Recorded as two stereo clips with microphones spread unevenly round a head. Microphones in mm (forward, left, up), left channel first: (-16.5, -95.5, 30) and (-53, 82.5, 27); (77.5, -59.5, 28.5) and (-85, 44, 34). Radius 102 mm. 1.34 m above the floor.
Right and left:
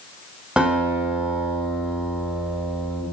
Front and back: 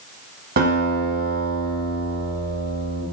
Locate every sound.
0.6 s a guitar: 175° right, 6.5 m